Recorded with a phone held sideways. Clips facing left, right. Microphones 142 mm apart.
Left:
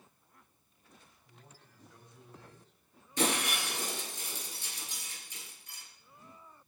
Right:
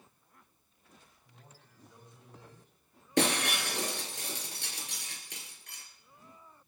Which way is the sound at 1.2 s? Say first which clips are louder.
Left 1 dB; 15° right (ahead or behind).